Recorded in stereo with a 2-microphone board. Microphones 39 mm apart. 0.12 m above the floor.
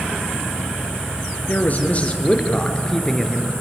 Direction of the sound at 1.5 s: 40° left (ahead or behind).